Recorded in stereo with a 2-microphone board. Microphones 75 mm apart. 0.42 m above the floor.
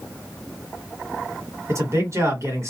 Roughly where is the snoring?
I don't hear snoring.